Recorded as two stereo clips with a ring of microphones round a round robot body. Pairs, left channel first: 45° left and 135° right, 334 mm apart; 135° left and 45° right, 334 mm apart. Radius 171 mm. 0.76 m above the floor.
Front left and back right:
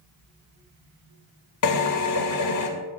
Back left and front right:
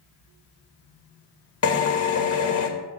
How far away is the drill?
About 2 m.